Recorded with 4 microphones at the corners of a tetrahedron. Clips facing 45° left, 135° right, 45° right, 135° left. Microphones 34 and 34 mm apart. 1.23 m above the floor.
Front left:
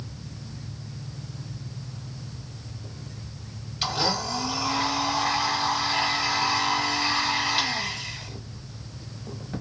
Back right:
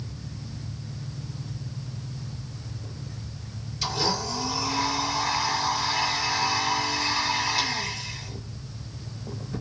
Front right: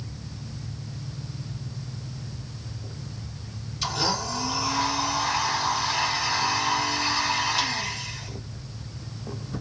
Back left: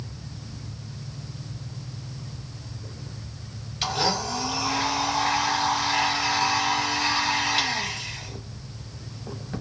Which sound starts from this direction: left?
A blender, at 3.8 s.